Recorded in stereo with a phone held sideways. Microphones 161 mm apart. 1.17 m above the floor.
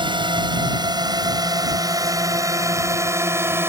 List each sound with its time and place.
0.0 s a drone: 30° right (ahead or behind); by 3.7 s 15° right (ahead or behind)